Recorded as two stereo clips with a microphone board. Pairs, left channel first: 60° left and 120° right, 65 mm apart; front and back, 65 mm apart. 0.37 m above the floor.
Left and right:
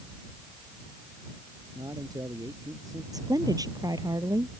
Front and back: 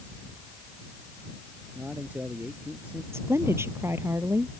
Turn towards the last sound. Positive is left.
turn(degrees=-130)